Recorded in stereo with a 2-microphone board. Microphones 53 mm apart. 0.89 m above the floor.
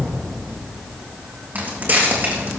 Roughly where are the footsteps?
Right.